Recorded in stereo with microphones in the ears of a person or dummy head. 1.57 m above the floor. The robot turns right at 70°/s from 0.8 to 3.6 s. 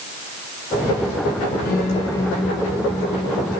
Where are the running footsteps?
I don't hear running footsteps.